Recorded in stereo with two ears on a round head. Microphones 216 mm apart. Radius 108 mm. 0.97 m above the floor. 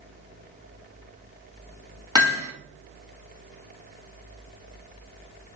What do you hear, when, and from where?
2.1 s hammering: 20° right (ahead or behind), 1.3 m